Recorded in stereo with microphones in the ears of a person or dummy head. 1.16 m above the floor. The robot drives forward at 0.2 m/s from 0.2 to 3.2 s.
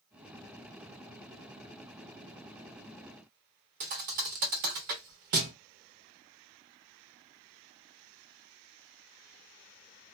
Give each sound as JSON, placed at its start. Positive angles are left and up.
{"t": 3.8, "sound": "a thud", "side_deg": -40, "distance_m": 0.6}